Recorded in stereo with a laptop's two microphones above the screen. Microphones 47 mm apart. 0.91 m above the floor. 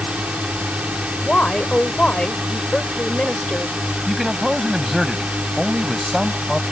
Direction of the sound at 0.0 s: 25° right (ahead or behind).